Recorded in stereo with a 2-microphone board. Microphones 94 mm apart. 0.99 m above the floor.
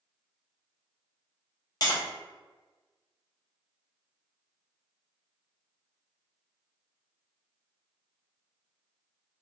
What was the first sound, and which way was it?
Tapping, 45° left (ahead or behind).